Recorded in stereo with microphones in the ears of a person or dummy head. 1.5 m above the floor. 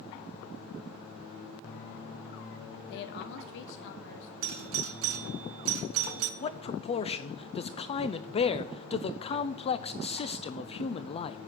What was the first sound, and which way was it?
A woman speaking, 60° left (ahead or behind).